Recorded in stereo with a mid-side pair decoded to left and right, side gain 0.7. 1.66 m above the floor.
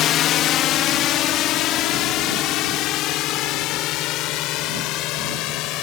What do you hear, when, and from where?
0.0 s a drone: 50° left; by 5.8 s 60° left